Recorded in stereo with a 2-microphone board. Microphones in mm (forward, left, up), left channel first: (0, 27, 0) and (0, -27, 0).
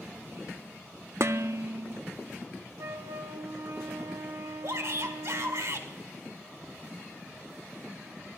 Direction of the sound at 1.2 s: 55° right (ahead or behind).